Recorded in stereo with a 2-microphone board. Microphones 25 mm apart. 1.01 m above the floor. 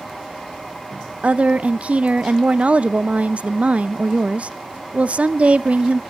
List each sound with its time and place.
1.2 s a woman speaking: 60° right (ahead or behind), 0.7 m